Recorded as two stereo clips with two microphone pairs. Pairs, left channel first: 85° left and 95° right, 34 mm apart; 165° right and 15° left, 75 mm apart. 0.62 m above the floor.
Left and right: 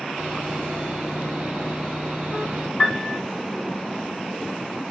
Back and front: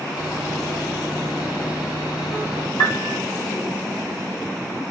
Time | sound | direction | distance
0.2 | sawing | 145° right | 2.5 m
2.8 | a piano | 155° left | 2.0 m